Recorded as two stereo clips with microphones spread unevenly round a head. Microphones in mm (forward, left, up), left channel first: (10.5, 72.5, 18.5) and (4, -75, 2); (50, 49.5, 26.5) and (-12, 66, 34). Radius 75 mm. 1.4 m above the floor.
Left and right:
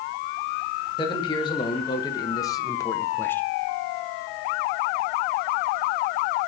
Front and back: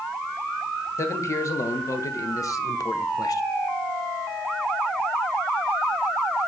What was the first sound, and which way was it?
A man speaking, 25° left.